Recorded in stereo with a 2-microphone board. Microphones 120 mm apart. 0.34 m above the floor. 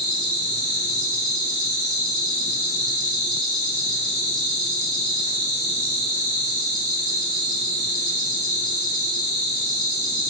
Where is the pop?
I don't hear a pop.